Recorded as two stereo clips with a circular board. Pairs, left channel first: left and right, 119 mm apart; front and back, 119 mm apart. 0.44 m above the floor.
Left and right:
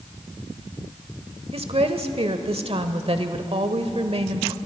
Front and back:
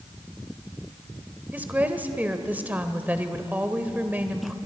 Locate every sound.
1.5 s a woman speaking: 105° right, 1.3 m